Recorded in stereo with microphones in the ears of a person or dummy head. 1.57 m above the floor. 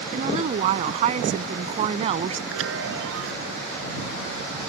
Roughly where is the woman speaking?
Right.